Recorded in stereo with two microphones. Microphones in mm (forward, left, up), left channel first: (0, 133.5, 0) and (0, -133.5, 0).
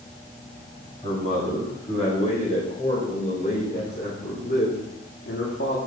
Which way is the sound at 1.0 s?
25° left (ahead or behind).